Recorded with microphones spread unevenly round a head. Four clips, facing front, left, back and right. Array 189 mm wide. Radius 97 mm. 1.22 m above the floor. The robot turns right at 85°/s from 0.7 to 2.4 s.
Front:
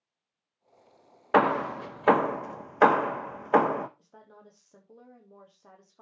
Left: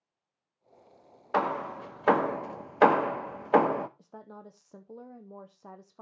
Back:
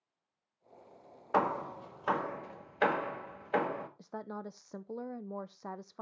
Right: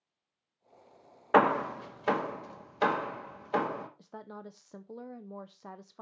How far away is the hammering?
About 0.7 m.